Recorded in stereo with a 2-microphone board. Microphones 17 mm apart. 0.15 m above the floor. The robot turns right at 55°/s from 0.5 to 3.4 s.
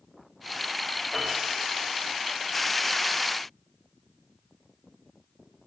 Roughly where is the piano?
Right.